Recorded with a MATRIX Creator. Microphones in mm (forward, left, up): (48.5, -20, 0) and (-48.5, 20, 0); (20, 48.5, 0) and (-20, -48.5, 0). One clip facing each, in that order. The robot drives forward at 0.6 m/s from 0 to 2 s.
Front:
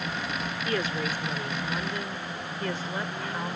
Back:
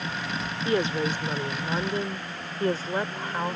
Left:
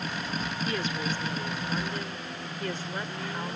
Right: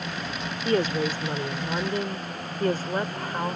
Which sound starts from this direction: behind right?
A woman speaking, at 0.7 s.